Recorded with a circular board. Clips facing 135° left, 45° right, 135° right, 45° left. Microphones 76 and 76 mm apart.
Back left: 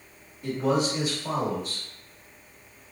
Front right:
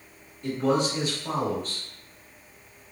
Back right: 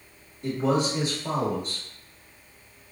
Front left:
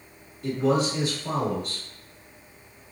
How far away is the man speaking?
About 1.3 m.